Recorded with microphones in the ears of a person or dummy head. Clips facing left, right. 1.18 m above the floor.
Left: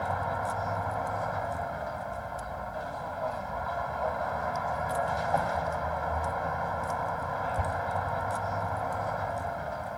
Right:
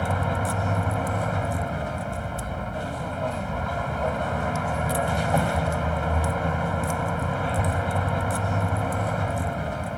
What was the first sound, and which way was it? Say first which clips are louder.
A vehicle: right 5 dB; 50° right (ahead or behind).